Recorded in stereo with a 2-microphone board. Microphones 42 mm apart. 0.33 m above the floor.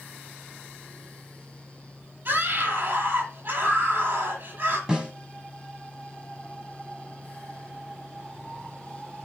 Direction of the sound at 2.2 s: 50° right (ahead or behind).